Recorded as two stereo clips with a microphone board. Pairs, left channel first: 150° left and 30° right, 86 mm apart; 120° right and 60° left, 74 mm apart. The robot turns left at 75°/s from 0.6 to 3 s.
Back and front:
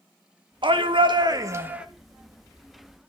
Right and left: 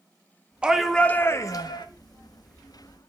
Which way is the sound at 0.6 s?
15° right.